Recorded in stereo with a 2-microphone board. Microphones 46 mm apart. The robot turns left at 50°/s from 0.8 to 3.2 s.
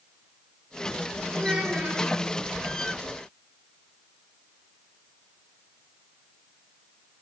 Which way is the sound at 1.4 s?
20° right.